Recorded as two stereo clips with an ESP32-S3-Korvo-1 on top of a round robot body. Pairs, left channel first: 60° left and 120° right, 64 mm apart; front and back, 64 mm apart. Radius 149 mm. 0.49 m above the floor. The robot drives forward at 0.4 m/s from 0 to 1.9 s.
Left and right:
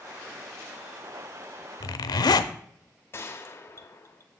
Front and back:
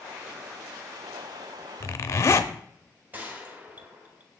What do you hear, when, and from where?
1.8 s a zipper: 45° left, 0.5 m; by 2.5 s 50° left, 0.5 m
3.1 s a gunshot: 115° left, 0.9 m